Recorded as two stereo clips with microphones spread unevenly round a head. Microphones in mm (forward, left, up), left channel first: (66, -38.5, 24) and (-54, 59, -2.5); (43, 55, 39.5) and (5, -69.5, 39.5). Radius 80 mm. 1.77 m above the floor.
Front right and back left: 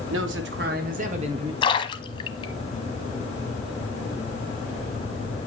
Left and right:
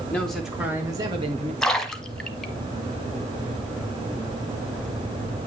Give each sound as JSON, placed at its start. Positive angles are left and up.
{"t": 0.1, "sound": "a man speaking", "azimuth_deg": 155, "distance_m": 2.0}
{"t": 1.6, "sound": "a splash", "azimuth_deg": -10, "distance_m": 1.1}